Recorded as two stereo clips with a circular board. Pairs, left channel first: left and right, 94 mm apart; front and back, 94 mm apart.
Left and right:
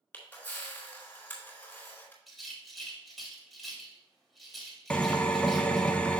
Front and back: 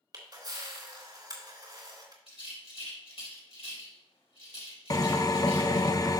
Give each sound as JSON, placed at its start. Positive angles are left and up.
{"t": 0.1, "sound": "a camera shutter", "azimuth_deg": 155, "distance_m": 2.5}
{"t": 2.3, "sound": "a rattle", "azimuth_deg": 0, "distance_m": 3.5}
{"t": 4.9, "sound": "a drill", "azimuth_deg": 15, "distance_m": 0.6}